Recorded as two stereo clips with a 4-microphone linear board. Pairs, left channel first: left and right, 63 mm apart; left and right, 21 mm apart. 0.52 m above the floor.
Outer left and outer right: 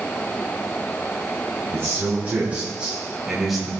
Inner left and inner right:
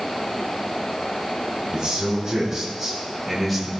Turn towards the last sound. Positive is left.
turn(degrees=0)  # may be behind; listen again after turning